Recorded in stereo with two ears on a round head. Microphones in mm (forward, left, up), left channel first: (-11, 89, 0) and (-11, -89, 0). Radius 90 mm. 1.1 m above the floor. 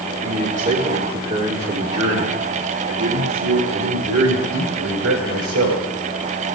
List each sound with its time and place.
0.2 s a man speaking: 35° right (ahead or behind), 2.5 m; by 5.8 s 85° right, 4 m